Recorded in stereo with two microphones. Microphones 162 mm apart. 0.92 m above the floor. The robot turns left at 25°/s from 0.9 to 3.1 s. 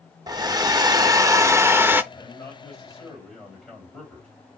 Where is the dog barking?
No dog barking in this recording.